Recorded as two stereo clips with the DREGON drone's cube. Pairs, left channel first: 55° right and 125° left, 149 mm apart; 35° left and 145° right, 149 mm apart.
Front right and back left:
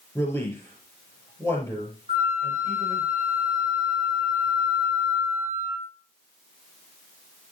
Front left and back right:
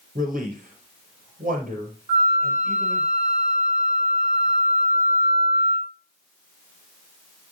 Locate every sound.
0.1 s a man speaking: 130° right, 3.5 m
2.1 s a flute: 165° left, 3.5 m